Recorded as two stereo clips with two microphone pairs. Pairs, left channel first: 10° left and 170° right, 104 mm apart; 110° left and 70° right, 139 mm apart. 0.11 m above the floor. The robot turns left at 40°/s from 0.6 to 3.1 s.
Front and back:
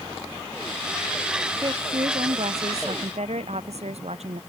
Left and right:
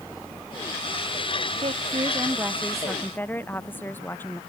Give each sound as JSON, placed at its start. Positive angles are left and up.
{"t": 1.6, "sound": "a woman speaking", "azimuth_deg": -115}